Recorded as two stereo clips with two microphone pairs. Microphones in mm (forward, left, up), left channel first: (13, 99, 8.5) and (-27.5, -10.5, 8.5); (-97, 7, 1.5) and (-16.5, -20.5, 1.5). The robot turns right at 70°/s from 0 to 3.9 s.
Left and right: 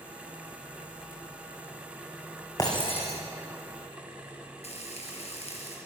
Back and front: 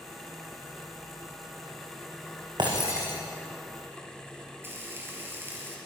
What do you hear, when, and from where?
2.6 s breaking glass: 10° left, 5 m; by 3.2 s 50° left, 5 m
4.6 s frying: 45° left, 5 m